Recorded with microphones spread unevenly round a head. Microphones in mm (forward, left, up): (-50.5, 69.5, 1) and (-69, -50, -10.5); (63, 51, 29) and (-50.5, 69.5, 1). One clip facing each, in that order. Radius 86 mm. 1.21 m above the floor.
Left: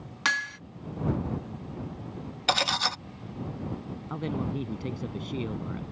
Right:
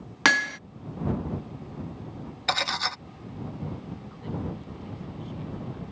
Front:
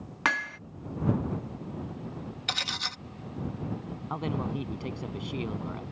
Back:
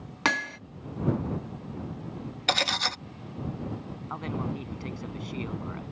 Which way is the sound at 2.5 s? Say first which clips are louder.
Left 2 dB, back 12 dB; 145° left.